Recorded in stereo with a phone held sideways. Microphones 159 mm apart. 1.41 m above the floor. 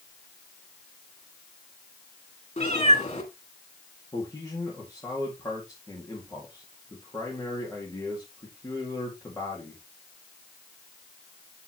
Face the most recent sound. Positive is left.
turn(degrees=25)  # may be behind; listen again after turning